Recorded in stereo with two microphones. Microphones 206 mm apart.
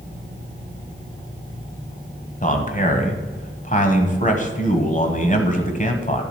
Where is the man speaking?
35° left (ahead or behind), 1.3 m.